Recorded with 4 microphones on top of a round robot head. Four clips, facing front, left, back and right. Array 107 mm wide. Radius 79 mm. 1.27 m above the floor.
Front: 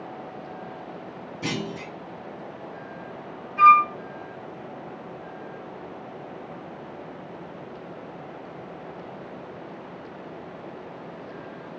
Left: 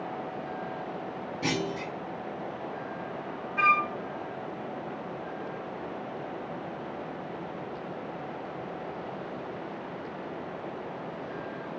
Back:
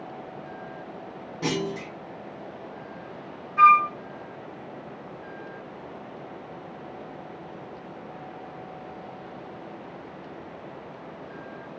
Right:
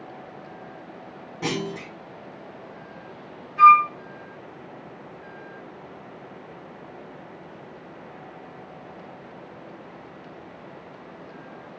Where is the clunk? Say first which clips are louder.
Right 2 dB, back 3 dB; 125° right, 1.7 m.